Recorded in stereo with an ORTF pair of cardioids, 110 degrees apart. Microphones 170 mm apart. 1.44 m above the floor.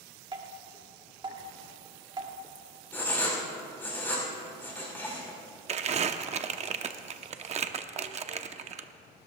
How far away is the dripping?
About 2 m.